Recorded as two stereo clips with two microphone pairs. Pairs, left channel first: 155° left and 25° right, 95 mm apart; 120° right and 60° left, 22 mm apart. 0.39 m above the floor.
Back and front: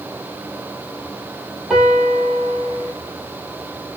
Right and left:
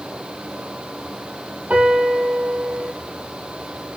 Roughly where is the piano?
Ahead left.